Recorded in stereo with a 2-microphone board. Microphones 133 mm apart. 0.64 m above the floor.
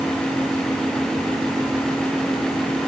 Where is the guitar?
I don't hear a guitar.